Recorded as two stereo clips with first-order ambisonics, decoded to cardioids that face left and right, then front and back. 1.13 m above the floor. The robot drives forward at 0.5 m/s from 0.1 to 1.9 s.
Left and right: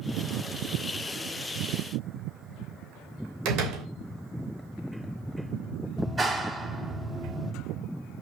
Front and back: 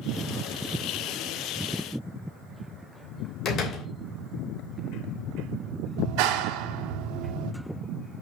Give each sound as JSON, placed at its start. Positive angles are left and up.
{"t": 3.5, "sound": "a door slam", "azimuth_deg": -55, "distance_m": 3.0}
{"t": 6.0, "sound": "a clap", "azimuth_deg": -165, "distance_m": 1.8}